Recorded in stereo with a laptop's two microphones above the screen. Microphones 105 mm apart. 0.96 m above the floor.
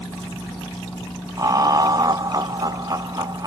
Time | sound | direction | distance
1.4 | laughter | 35° right (ahead or behind) | 0.7 m